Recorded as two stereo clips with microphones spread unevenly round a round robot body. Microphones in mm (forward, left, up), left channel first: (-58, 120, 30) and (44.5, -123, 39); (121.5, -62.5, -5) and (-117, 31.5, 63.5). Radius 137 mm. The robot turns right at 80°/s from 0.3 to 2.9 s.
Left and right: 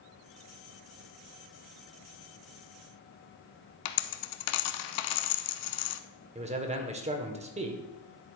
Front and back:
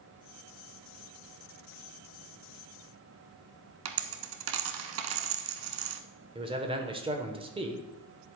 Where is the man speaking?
120° right, 1.1 m.